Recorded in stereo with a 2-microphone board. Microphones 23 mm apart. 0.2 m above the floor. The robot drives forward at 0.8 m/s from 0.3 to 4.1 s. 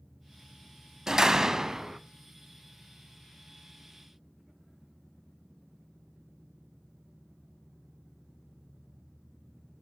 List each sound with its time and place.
1.1 s a door slam: 25° right (ahead or behind), 0.7 m; by 2.0 s 20° right (ahead or behind), 1.0 m